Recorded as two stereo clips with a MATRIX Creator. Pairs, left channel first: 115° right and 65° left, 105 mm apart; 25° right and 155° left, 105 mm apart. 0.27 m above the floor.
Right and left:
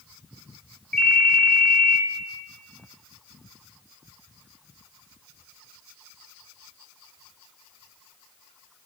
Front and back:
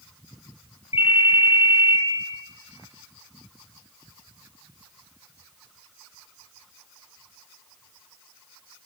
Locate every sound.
0.9 s a ringtone: 35° right, 2 m